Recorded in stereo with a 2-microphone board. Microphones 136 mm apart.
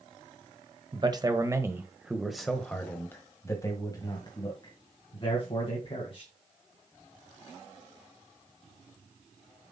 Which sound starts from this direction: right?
A man speaking, at 0.9 s.